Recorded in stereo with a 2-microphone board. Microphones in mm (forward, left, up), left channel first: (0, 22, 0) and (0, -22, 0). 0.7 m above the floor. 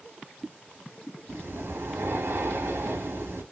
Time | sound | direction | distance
1.3 | breathing | 75° right (ahead or behind) | 1.7 m